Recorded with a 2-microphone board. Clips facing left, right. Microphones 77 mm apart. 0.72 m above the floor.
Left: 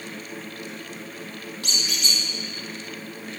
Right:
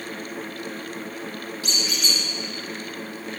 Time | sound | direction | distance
1.6 | a squeak | 70° left (ahead or behind) | 1.1 m